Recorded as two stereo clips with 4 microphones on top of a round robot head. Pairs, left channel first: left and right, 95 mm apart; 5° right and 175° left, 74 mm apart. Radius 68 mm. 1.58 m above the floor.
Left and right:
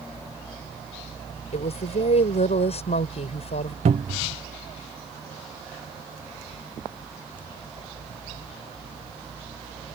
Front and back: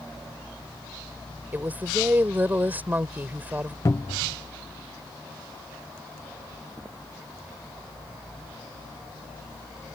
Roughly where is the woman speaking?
Left.